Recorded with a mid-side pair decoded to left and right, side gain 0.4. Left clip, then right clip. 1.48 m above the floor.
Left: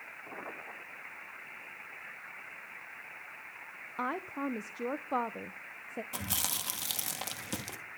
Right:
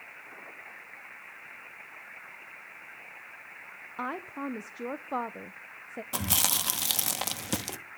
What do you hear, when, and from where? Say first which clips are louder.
4.0 s a woman speaking: even; 5° left, 0.9 m
6.1 s chewing: right 8 dB; 50° right, 1.6 m